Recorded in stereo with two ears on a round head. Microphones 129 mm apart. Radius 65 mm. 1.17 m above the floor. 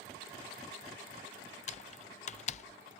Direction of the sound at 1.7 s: 50° left (ahead or behind).